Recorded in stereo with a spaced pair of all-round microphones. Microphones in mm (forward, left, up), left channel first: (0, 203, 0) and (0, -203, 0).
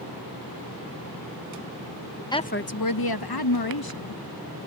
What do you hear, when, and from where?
2.3 s a woman speaking: 10° left (ahead or behind); by 4.2 s 60° left (ahead or behind)